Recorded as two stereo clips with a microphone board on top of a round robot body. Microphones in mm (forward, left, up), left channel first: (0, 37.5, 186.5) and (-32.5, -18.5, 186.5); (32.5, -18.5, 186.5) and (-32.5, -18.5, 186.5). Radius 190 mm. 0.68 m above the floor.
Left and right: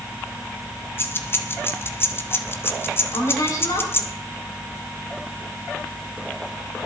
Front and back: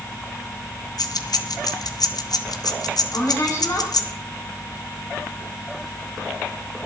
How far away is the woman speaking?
About 5.5 m.